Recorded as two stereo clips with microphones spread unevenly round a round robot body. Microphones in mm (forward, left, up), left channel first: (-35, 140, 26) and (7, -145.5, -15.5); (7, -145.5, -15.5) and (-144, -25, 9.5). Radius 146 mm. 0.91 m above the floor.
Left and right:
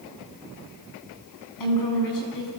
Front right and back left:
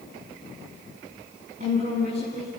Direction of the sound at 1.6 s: 75° left.